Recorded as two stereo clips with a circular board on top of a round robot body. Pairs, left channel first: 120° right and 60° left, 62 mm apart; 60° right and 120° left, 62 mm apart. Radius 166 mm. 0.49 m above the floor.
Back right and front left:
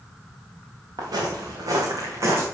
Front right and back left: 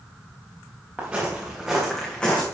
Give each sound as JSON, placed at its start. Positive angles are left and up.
{"t": 1.0, "sound": "footsteps", "azimuth_deg": 50, "distance_m": 3.0}